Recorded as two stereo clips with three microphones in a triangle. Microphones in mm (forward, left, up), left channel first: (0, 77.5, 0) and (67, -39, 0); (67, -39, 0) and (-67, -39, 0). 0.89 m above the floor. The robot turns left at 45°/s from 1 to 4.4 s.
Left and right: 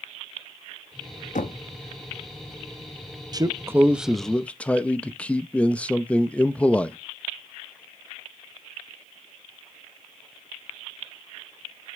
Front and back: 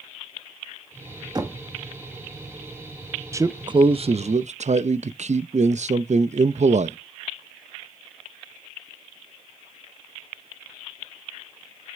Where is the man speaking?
115° right, 0.5 m; by 7.0 s 160° right, 0.5 m.